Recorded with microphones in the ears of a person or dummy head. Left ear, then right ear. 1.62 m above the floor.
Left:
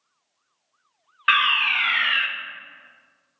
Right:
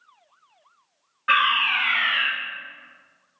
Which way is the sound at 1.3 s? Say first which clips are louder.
Left 1 dB; 45° left (ahead or behind).